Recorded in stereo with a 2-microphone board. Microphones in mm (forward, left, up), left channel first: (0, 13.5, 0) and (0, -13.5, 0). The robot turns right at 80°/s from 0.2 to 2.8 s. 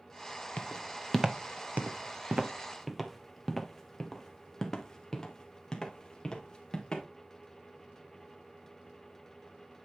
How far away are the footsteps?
About 1.3 m.